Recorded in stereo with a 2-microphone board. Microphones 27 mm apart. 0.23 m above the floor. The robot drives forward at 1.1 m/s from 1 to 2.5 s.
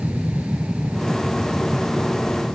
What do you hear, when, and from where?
0.0 s an aircraft: 65° right (ahead or behind)